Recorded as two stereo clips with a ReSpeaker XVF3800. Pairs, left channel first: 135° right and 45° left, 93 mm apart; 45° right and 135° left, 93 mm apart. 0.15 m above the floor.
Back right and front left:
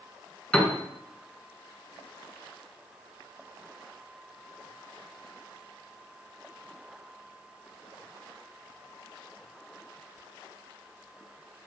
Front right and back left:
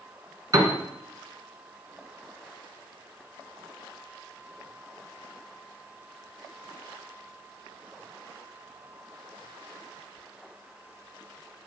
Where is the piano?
150° left, 2.0 m.